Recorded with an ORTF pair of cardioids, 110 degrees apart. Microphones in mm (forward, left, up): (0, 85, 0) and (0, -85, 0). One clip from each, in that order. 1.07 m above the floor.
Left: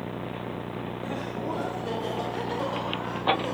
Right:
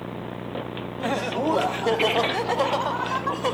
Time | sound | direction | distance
1.0 | laughter | 70° right | 1.4 m